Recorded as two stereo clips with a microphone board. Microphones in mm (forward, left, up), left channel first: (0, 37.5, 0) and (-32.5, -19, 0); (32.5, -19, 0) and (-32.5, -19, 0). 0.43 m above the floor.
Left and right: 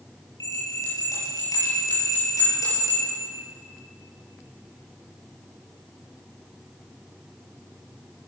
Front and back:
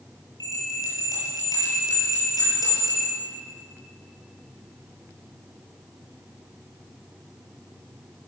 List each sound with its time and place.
0.4 s a bell: 25° left, 8.5 m